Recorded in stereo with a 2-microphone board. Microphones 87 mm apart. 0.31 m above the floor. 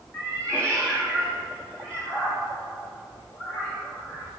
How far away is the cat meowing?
About 1.9 m.